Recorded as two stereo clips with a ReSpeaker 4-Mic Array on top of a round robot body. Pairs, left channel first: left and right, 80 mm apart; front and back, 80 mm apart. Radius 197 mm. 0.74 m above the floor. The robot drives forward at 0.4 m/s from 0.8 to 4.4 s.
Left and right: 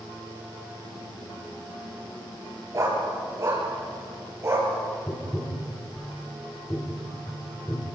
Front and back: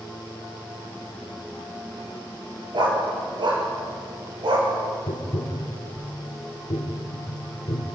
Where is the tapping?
20° left, 3 m.